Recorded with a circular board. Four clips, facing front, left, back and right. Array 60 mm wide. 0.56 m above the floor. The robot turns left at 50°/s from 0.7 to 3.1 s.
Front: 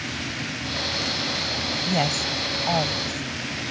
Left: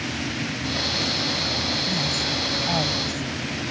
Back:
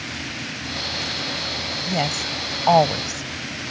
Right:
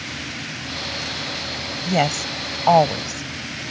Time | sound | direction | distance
1.8 | a woman speaking | 85° right | ?